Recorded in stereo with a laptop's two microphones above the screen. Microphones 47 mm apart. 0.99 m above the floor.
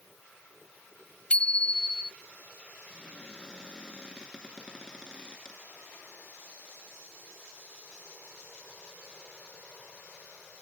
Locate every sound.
1.3 s a bicycle bell: 25° left (ahead or behind)
2.9 s a cupboard door: 15° left (ahead or behind)